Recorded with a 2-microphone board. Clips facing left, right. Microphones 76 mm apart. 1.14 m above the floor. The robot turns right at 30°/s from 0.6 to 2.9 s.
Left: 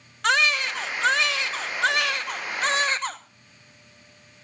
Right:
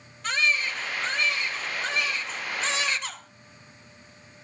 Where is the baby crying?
70° left, 1.0 m; by 3.2 s 140° left, 1.0 m.